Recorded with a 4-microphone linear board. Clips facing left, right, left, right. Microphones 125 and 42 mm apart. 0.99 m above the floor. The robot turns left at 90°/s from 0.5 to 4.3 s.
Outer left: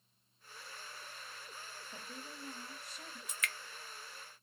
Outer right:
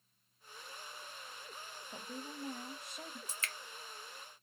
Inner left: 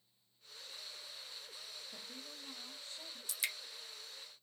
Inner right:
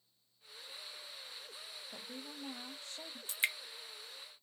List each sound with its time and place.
1.9 s a woman speaking: 30° right, 1.0 m; by 3.2 s 145° right, 1.0 m
3.3 s dripping: 30° right (ahead or behind), 0.6 m; by 3.5 s 25° right (ahead or behind), 0.6 m